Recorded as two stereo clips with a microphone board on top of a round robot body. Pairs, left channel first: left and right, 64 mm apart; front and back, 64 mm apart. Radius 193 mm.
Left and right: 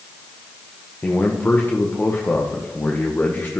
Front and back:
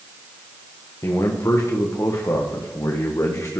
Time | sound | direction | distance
1.0 | a man speaking | 35° left | 1.6 m